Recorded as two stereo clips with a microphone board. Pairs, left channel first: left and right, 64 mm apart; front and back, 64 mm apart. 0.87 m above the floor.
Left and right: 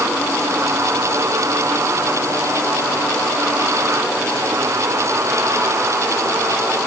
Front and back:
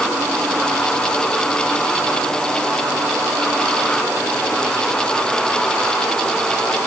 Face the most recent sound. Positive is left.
No sound to turn to.